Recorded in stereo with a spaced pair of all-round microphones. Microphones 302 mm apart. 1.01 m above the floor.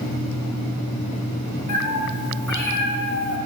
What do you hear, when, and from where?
1.7 s a cat meowing: 70° left (ahead or behind), 2 m; by 3.4 s 50° left (ahead or behind), 1.0 m